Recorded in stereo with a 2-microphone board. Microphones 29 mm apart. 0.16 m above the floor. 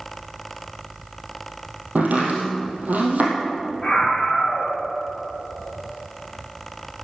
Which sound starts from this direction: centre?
A scream, at 3.8 s.